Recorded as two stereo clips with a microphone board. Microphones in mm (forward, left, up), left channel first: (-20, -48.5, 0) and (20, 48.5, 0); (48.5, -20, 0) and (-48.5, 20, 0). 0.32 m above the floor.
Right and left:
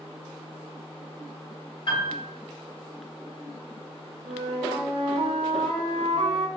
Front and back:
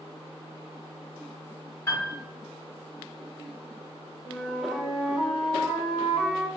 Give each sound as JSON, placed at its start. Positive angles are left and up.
{"t": 1.9, "sound": "a piano", "azimuth_deg": -85, "distance_m": 1.4}
{"t": 4.2, "sound": "a flute", "azimuth_deg": 75, "distance_m": 0.8}